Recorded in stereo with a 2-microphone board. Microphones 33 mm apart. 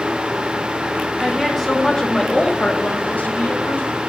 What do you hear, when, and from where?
1.2 s a woman speaking: 5° right (ahead or behind), 1.5 m; by 4.0 s 80° left, 1.4 m